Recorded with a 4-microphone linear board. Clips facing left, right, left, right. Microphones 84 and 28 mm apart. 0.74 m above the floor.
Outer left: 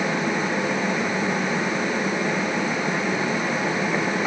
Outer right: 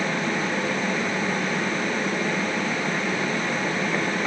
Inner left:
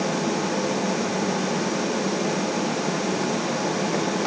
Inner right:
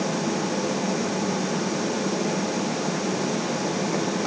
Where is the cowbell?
No cowbell in this recording.